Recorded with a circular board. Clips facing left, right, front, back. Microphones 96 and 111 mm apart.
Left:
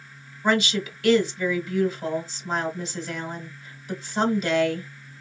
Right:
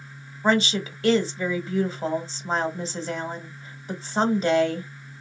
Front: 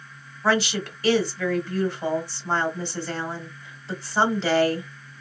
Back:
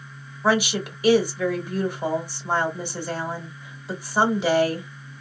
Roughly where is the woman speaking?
Behind right.